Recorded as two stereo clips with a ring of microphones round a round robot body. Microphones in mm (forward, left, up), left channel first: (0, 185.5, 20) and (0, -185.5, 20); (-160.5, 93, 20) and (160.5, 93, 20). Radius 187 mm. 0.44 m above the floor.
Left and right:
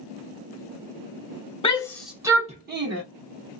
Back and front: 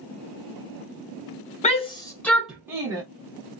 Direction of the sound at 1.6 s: 145° left.